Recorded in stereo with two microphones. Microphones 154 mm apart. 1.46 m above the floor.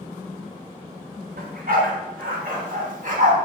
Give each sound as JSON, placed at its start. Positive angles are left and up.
{"t": 1.4, "sound": "a dog barking", "side_deg": -75, "distance_m": 4.0}